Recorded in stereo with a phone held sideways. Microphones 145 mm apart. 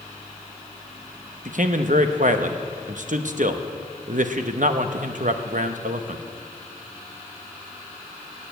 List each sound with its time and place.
1.4 s a man speaking: 60° right (ahead or behind), 0.9 m